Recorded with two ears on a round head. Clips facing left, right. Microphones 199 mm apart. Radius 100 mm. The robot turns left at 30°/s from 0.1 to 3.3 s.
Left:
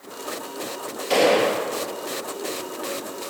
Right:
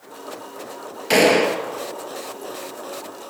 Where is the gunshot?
75° right (ahead or behind), 2 m; by 1.7 s 60° right (ahead or behind), 2 m.